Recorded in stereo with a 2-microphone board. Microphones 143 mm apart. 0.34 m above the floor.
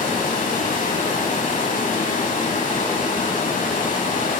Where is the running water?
65° left (ahead or behind), 1.0 m.